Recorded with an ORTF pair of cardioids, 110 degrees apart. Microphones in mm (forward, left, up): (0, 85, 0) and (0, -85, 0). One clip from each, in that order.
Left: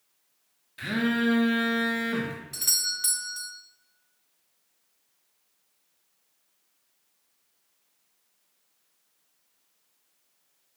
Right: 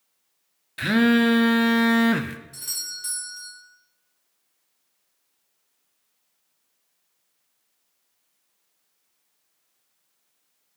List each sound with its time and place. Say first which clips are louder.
0.8 s a phone buzzing: right 7 dB; 50° right, 0.6 m
2.5 s a doorbell: left 7 dB; 40° left, 1.2 m